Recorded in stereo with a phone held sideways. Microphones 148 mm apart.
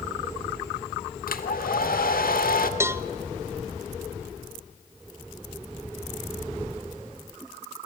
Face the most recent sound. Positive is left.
turn(degrees=-15)  # may be behind; listen again after turning